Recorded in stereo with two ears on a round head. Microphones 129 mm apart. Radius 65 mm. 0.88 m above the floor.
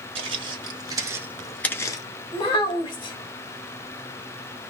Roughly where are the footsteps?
Right.